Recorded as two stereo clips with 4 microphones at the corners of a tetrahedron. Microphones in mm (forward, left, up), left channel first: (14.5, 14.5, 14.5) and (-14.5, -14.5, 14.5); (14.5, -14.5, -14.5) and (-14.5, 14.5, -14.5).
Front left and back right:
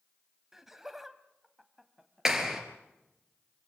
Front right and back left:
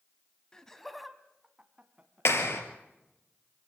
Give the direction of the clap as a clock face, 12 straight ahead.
2 o'clock.